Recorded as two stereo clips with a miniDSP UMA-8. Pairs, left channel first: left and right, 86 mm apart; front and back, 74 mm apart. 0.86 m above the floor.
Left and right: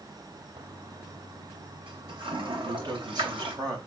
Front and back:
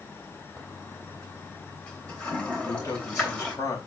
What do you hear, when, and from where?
0.6 s a toilet flushing: 75° right, 3 m
2.5 s a man speaking: 50° right, 4.5 m